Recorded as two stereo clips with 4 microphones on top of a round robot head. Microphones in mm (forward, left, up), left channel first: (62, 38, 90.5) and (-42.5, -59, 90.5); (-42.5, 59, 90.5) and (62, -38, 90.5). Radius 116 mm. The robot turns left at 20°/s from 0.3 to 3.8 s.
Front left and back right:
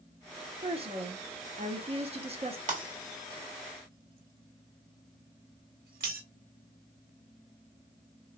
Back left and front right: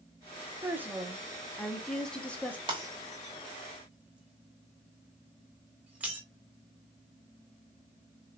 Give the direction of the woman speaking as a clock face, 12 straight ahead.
4 o'clock.